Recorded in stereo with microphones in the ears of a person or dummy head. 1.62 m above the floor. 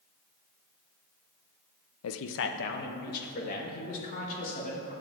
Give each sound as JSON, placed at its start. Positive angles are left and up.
{"t": 2.0, "sound": "a man speaking", "side_deg": 85, "distance_m": 0.6}